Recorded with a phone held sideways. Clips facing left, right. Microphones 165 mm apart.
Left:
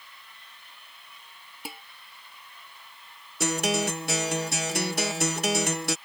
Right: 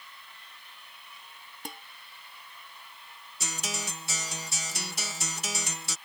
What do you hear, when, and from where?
1.6 s dishes clattering: 10° left (ahead or behind)
3.4 s a guitar: 65° left (ahead or behind)